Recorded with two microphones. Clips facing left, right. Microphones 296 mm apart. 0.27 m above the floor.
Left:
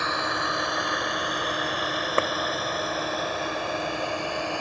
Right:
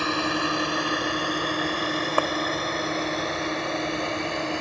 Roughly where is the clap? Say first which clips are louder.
Left 1 dB; left.